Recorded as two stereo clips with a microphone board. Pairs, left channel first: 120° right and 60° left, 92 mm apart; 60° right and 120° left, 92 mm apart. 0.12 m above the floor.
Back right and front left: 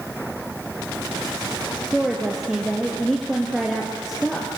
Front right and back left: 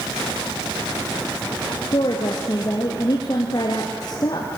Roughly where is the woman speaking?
Ahead right.